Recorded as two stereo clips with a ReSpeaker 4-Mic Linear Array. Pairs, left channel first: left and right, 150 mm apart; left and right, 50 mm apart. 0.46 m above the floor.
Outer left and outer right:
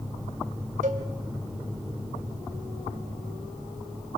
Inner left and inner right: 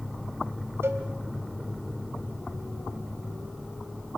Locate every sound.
0.8 s a cowbell: 60° right (ahead or behind), 2 m